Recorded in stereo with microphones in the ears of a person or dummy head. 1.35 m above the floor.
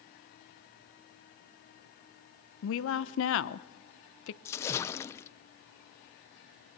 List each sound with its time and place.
2.6 s a woman speaking: 80° left, 0.8 m
4.5 s a splash: 20° left (ahead or behind), 0.6 m